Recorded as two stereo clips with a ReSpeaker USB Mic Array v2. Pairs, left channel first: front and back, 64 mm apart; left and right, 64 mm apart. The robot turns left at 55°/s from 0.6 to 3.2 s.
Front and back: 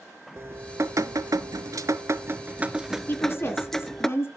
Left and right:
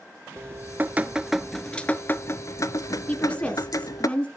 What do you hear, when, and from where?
0.4 s dripping: 135° right, 0.6 m; by 4.1 s 85° left, 0.6 m
3.1 s a woman speaking: 35° left, 1.8 m; by 4.3 s 30° left, 1.8 m